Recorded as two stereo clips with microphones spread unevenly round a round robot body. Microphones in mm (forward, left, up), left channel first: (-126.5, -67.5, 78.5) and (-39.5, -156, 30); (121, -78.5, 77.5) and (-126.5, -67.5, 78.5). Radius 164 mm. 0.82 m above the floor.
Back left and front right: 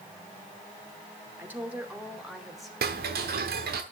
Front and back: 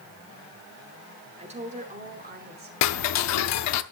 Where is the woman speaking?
115° right, 2.5 m; by 2.7 s 130° right, 3.5 m.